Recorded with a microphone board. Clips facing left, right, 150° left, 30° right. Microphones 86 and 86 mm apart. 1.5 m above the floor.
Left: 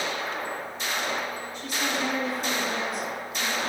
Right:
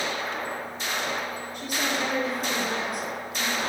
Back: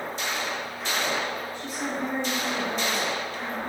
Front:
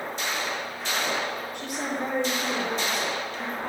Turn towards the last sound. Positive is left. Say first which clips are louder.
# right 1 dB, even
turn(degrees=-55)